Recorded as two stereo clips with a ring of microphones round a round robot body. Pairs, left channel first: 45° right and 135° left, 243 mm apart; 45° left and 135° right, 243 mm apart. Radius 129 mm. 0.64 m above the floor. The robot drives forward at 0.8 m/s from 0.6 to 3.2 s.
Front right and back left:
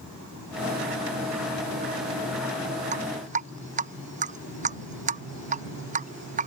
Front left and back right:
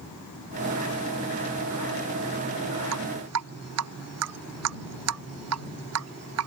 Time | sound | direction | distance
2.9 | dripping | 165° right | ?